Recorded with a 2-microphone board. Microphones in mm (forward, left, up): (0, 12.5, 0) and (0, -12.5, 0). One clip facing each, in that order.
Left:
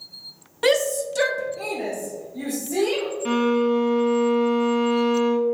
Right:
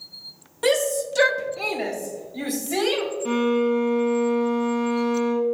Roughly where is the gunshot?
I don't hear a gunshot.